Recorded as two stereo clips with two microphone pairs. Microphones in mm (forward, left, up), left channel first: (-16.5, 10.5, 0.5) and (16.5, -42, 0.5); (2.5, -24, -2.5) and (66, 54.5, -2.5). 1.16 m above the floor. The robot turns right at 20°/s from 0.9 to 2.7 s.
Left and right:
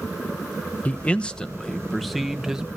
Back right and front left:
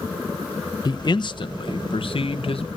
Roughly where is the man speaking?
Behind.